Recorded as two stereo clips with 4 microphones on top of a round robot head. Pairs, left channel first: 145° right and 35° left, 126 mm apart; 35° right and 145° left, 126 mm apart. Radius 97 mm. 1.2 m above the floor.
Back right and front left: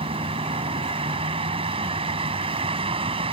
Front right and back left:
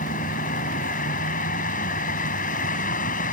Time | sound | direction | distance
0.0 | a vehicle | 15° right | ?